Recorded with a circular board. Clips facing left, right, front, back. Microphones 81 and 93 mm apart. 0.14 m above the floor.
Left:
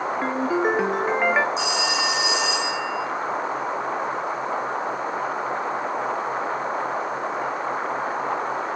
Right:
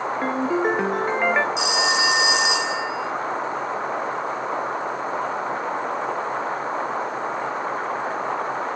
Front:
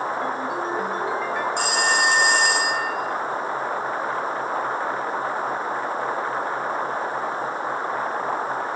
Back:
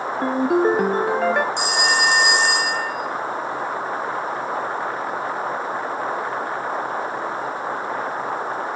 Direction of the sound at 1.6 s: 110° right.